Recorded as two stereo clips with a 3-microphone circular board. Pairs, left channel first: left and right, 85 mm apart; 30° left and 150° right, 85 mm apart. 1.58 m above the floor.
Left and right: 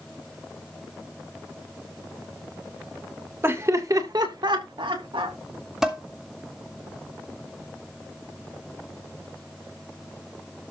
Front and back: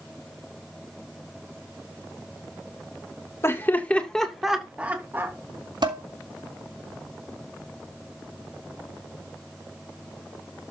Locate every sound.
3.4 s laughter: 30° right, 2.5 m; by 5.3 s 90° right, 3 m
5.8 s dishes clattering: 175° right, 3 m